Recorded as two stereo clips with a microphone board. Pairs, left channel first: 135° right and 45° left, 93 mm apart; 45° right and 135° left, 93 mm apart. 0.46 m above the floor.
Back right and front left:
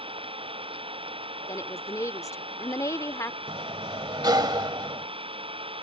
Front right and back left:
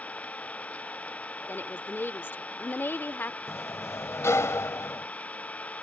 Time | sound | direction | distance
0.0 | an engine running | 30° left | ?
1.5 | a woman speaking | 100° right | ?
3.5 | a sliding door | 10° left | ?